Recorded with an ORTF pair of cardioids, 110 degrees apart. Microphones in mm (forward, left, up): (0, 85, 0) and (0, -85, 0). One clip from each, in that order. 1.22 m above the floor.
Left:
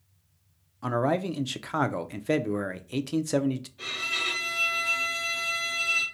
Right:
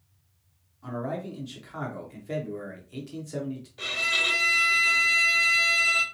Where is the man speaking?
60° left, 0.6 m.